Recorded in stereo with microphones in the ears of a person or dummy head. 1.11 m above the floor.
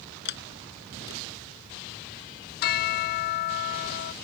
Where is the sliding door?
65° left (ahead or behind).